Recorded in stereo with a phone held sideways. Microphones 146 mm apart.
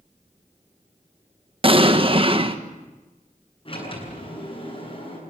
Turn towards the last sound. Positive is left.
turn(degrees=40)  # may be behind; listen again after turning